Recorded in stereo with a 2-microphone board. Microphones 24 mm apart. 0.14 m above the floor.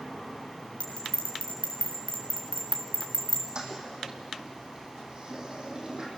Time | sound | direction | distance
0.8 | a bell | 65° left (ahead or behind) | 4 m
3.5 | a toilet flushing | 35° right (ahead or behind) | 4 m